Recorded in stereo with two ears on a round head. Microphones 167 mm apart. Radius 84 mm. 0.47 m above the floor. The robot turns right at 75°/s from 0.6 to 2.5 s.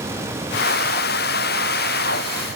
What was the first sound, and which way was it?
Only background noise.